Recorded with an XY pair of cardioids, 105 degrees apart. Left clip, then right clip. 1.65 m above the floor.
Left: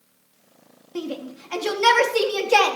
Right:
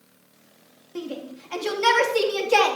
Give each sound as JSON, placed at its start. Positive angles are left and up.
{"t": 0.9, "sound": "a shout", "azimuth_deg": 25, "distance_m": 3.5}